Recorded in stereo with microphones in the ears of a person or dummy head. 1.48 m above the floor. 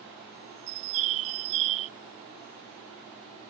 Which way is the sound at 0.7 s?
40° right (ahead or behind).